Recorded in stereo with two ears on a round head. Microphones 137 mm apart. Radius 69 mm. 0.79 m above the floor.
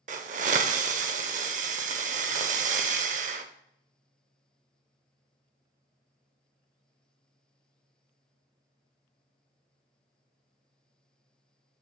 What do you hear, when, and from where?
0.1 s a hiss: 55° right (ahead or behind), 0.7 m